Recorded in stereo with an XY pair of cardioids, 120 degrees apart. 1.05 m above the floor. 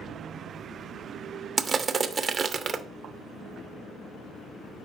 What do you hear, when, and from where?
1.6 s crushing: 30° right, 0.6 m